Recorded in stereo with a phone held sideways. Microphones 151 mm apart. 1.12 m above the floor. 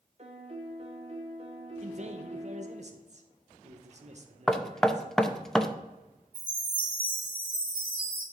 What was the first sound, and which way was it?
A piano, 45° right (ahead or behind).